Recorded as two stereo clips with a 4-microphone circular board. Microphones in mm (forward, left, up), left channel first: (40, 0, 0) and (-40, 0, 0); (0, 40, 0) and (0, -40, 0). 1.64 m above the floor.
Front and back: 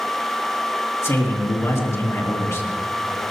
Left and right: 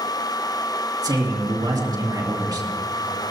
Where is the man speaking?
55° right, 2.5 m.